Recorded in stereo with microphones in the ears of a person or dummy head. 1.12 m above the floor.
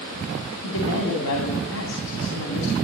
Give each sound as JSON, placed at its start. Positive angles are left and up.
{"t": 0.6, "sound": "a woman speaking", "side_deg": 85, "distance_m": 2.5}